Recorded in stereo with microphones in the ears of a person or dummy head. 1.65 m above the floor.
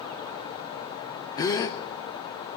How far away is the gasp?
About 0.9 m.